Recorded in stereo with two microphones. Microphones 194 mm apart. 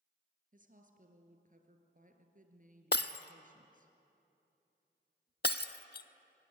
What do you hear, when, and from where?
0.5 s a woman speaking: 45° right (ahead or behind), 2 m
2.9 s breaking glass: 60° left (ahead or behind), 0.7 m